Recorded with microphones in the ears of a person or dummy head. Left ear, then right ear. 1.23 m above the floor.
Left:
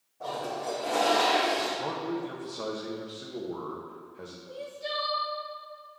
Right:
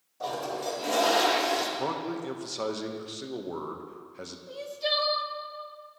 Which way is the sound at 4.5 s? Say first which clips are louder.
Right 6 dB; 30° right (ahead or behind).